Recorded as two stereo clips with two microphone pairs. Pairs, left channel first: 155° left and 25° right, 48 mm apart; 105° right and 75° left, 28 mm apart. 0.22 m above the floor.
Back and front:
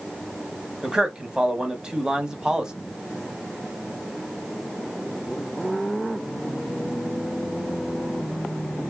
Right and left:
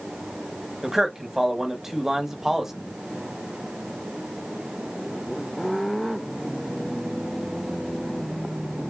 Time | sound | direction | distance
0.8 | a man speaking | 30° left | 1.0 m